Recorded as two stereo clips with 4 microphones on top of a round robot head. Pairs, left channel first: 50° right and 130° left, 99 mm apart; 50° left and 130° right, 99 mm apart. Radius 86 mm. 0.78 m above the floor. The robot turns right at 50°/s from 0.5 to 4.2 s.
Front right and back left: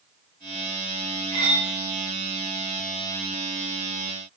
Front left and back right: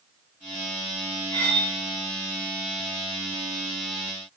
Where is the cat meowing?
No cat meowing in this recording.